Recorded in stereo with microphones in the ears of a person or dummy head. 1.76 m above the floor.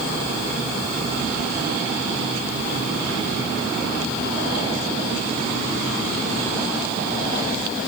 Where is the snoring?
No snoring in this recording.